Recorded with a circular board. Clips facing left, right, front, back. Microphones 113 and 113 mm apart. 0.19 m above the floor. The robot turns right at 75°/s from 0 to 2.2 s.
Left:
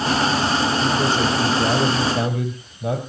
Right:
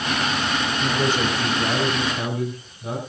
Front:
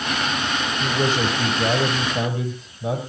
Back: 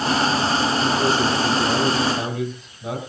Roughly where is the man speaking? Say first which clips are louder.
Left 3 dB, back 2 dB; ahead right.